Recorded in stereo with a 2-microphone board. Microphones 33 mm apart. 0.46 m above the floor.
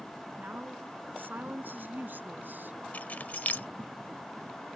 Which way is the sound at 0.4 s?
70° right (ahead or behind).